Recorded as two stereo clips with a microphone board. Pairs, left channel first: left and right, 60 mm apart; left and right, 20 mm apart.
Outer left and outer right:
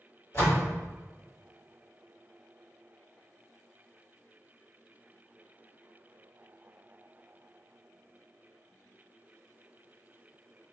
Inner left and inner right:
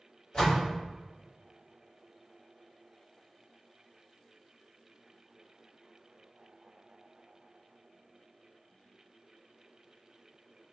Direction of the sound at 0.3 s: 45° left (ahead or behind).